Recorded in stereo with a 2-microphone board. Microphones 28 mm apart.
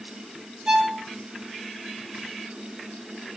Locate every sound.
0.7 s a violin: 55° right (ahead or behind), 1.5 m